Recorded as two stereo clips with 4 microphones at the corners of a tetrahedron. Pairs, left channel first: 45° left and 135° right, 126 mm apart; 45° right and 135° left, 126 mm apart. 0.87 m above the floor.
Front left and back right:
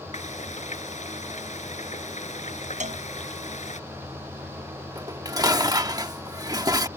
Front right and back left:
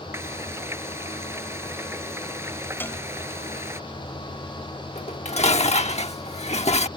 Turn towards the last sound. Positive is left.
turn(degrees=-75)